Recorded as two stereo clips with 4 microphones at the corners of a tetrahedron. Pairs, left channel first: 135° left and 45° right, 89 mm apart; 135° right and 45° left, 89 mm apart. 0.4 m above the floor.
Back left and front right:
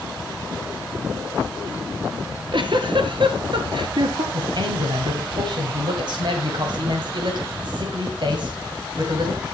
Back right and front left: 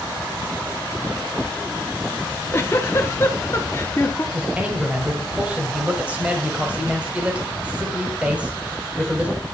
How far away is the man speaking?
About 2 m.